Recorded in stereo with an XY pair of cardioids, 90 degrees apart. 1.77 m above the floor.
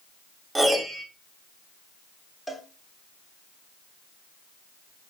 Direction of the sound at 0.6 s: 25° right.